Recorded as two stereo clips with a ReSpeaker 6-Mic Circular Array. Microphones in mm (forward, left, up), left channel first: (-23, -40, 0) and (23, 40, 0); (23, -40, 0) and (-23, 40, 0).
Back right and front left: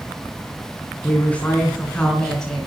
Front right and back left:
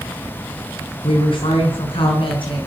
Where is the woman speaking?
50° right, 3.5 m; by 2.7 s 35° right, 4.5 m.